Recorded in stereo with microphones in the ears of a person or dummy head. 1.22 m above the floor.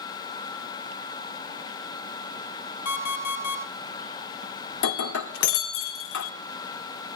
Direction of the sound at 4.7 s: 70° left (ahead or behind).